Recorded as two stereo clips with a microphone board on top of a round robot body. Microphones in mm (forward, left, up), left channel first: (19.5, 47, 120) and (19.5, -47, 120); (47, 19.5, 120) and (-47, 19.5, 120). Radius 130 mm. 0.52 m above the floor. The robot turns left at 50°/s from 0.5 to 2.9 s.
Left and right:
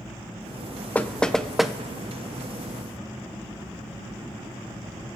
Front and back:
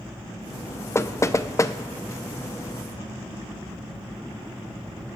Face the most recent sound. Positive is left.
turn(degrees=-65)